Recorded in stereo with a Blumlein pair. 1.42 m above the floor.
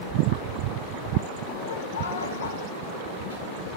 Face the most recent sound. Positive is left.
turn(degrees=80)